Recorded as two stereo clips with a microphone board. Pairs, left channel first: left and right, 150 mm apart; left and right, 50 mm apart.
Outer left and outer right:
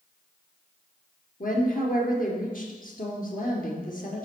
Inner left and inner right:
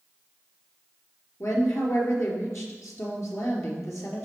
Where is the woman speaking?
65° left (ahead or behind), 3.5 m.